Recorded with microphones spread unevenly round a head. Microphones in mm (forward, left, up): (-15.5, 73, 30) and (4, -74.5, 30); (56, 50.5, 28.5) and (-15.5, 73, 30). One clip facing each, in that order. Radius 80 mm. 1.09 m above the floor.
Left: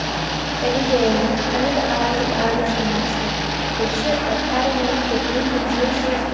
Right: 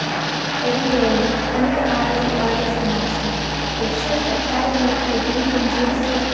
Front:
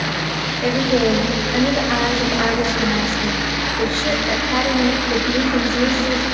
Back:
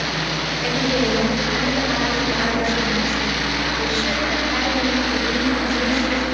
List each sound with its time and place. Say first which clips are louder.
0.6 s a woman speaking: even, front 4 dB; 40° left, 5 m